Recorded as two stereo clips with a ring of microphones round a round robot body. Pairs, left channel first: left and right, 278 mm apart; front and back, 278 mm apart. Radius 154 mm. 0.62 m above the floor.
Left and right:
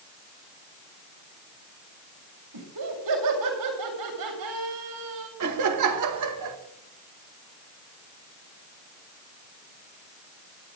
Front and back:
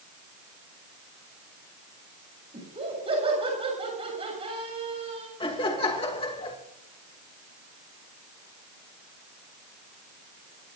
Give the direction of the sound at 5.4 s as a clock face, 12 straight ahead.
2 o'clock.